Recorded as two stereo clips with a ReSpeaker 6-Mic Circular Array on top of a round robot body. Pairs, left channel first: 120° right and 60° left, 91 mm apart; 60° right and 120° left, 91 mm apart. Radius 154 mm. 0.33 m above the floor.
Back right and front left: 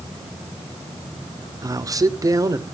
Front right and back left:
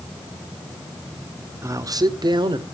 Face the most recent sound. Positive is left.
turn(degrees=105)